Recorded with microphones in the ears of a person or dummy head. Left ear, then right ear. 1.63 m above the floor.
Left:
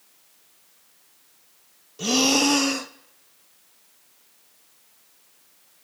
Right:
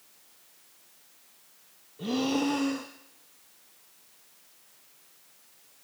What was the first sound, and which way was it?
Breathing, 75° left (ahead or behind).